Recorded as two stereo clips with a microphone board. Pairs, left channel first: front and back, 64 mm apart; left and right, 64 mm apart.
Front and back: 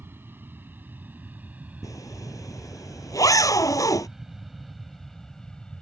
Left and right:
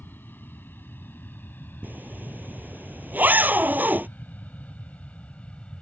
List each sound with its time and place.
0.0 s an aircraft: 135° left; by 5.8 s 55° left
1.8 s a zipper: 30° right